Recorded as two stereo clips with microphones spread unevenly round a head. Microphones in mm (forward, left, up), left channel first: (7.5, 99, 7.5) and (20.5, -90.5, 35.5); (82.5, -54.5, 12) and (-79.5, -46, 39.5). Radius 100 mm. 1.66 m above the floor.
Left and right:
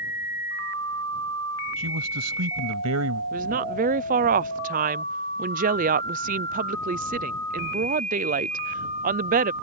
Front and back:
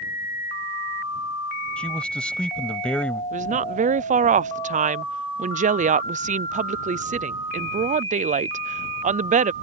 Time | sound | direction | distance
1.8 | a man speaking | 90° right | ?
3.3 | a woman speaking | 135° right | ?